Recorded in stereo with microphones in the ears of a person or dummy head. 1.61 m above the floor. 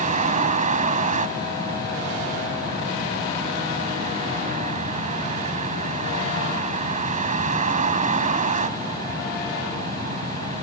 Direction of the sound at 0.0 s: 40° right (ahead or behind).